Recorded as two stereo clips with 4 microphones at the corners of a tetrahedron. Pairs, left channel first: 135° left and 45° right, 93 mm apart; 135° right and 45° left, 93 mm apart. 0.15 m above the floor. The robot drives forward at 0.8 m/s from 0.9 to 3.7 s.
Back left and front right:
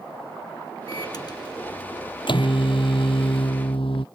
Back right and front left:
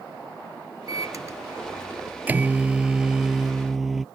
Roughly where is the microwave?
Left.